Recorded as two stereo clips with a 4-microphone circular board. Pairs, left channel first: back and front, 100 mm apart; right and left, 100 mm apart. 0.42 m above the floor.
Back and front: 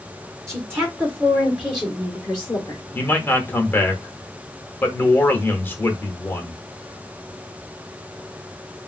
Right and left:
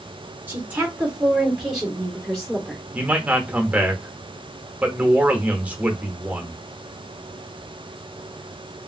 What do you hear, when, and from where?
0.5 s a woman speaking: 35° left, 1.5 m; by 2.8 s 155° right, 1.3 m
2.9 s a man speaking: 145° left, 0.8 m